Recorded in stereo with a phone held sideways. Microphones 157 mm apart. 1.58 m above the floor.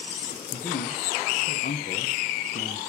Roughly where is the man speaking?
Left.